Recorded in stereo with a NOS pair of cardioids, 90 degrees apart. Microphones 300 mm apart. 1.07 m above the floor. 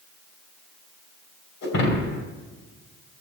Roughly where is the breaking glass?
Left.